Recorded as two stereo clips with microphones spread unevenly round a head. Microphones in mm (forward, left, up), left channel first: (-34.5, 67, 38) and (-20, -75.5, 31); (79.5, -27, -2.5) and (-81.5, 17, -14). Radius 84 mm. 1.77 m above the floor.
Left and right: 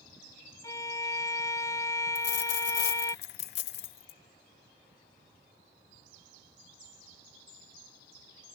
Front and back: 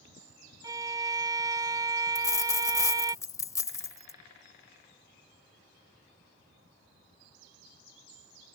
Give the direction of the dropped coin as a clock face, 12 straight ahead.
10 o'clock.